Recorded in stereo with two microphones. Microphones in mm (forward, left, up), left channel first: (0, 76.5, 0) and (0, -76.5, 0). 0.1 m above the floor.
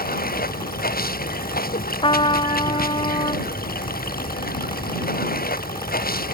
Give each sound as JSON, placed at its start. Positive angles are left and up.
{"t": 0.0, "sound": "running water", "side_deg": 75}
{"t": 2.0, "sound": "a trumpet", "side_deg": 35}